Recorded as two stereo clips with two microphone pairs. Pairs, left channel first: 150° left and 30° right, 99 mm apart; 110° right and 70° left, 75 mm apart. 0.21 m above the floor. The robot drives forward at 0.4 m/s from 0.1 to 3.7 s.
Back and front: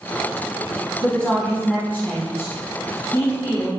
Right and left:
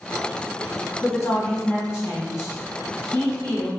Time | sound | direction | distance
1.0 | a woman speaking | 135° right | 1.2 m